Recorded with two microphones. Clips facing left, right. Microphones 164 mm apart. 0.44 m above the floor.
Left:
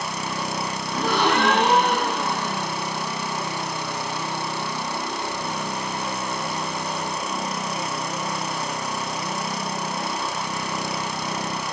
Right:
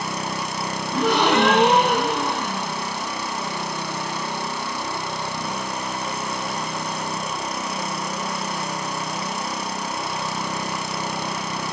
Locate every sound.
0.9 s a gasp: 75° right (ahead or behind), 2.5 m